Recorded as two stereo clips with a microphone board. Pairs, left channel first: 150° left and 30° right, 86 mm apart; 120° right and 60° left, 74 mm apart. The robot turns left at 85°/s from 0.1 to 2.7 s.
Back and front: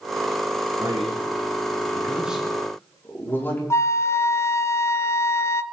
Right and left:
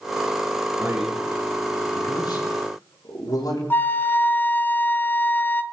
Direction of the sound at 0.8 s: 20° left.